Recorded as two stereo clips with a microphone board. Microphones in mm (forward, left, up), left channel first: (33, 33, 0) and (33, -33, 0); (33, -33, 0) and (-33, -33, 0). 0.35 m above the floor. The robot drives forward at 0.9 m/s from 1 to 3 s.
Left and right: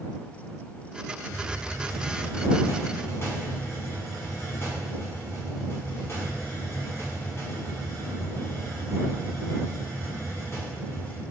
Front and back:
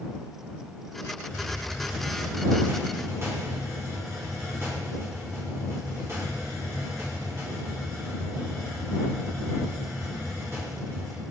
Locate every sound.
1.3 s a hiss: 70° left, 1.2 m; by 11.2 s 135° left, 1.6 m